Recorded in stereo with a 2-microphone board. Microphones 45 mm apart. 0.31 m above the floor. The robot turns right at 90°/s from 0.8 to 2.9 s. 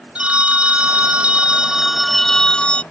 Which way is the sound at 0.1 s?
25° right (ahead or behind).